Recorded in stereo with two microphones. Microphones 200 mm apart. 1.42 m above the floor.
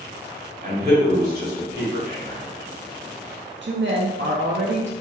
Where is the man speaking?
55° right (ahead or behind), 1.6 m.